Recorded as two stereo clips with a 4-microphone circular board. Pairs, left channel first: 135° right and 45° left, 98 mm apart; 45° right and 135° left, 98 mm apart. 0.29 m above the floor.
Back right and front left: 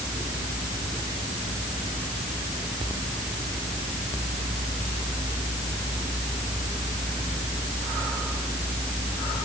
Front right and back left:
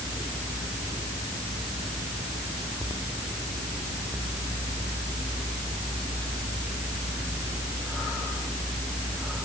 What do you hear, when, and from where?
Only background noise.